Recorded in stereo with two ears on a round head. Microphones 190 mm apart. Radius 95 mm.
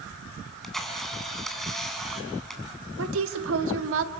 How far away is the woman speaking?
About 1.4 m.